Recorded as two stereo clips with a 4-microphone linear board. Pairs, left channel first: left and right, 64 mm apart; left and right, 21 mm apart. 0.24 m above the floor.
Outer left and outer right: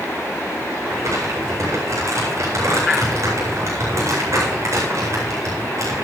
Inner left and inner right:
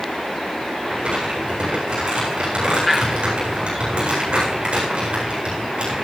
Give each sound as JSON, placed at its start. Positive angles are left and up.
{"t": 0.8, "sound": "crumpling", "side_deg": -55, "distance_m": 8.5}